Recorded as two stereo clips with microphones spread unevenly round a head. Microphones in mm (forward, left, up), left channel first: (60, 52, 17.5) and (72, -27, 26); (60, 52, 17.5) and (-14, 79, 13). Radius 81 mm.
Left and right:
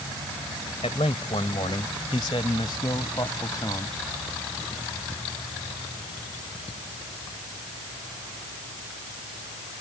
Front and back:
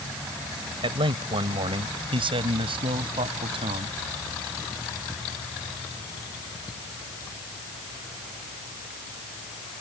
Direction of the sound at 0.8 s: 150° left.